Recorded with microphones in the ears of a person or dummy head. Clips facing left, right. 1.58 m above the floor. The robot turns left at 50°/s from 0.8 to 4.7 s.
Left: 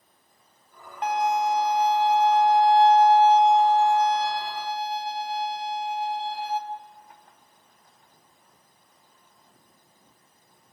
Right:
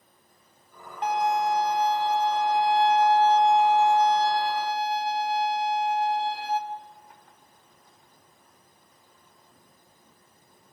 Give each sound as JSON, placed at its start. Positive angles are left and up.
{"t": 1.0, "sound": "a violin", "azimuth_deg": 120, "distance_m": 0.9}